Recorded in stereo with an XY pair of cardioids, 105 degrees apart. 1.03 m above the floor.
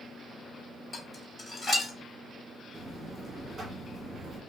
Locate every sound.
0.9 s dishes clattering: 25° left, 1.9 m
2.7 s a buzzer: 35° right, 1.3 m